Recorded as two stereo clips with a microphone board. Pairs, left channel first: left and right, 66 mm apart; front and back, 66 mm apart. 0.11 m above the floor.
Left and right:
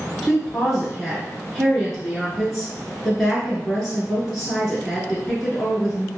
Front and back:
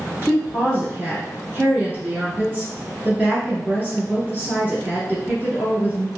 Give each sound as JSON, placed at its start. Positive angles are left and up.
{"t": 0.2, "sound": "a woman speaking", "azimuth_deg": 175, "distance_m": 1.5}